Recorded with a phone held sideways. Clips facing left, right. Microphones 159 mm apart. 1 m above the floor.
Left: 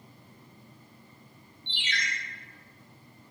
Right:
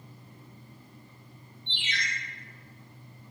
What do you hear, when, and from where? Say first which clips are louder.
1.7 s a ringtone: left 1 dB; 75° left (ahead or behind), 1.3 m